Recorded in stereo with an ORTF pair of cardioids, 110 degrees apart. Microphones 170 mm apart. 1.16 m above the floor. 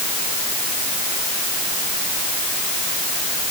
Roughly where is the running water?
No running water in this recording.